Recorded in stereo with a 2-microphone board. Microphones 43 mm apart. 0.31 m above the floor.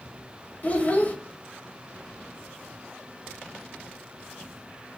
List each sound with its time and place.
0.6 s a child speaking: 40° left (ahead or behind), 0.6 m